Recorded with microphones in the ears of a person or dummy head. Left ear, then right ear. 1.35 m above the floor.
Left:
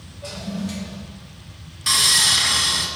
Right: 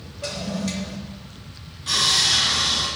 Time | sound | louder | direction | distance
0.2 | a toilet flushing | right 3 dB | 75° right (ahead or behind) | 3 m
1.9 | sawing | left 2 dB | 50° left (ahead or behind) | 2 m